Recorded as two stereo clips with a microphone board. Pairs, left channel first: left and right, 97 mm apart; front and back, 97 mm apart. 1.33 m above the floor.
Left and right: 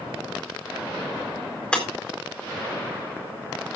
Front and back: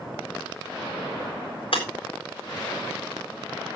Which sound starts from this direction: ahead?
Breaking glass, at 1.7 s.